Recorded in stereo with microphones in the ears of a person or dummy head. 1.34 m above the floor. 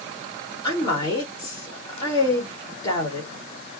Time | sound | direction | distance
0.6 | a woman speaking | 20° left (ahead or behind) | 1.8 m